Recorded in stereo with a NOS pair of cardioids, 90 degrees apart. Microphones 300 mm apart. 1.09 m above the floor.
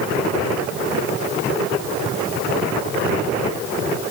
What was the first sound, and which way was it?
Only background noise.